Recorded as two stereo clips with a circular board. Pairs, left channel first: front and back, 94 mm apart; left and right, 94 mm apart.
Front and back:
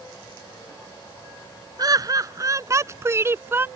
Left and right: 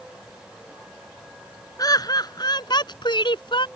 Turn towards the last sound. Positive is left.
turn(degrees=115)